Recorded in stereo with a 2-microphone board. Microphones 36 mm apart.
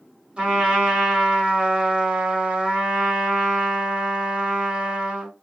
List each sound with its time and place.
0.4 s a trumpet: 25° right (ahead or behind), 1.7 m